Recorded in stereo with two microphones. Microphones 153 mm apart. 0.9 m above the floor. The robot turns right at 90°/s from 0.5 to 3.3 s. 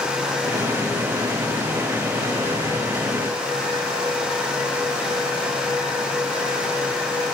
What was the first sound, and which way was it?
Only background noise.